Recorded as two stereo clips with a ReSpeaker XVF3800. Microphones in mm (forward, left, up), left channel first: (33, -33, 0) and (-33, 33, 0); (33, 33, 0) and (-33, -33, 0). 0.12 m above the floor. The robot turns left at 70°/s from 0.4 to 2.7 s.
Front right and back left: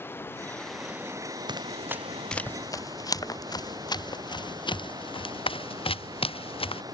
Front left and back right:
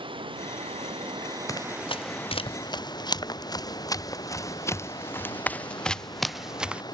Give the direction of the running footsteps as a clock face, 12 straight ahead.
9 o'clock.